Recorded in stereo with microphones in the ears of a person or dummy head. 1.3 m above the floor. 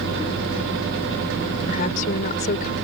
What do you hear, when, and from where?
1.7 s a woman speaking: 45° left (ahead or behind)